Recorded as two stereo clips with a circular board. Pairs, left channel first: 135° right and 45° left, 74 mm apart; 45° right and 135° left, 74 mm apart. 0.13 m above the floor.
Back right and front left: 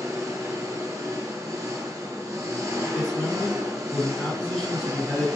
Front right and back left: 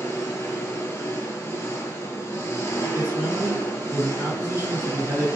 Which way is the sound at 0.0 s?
5° left.